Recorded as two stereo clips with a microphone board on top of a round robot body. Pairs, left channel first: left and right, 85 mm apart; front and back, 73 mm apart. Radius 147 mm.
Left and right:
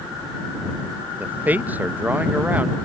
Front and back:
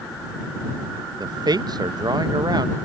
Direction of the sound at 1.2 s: 160° right.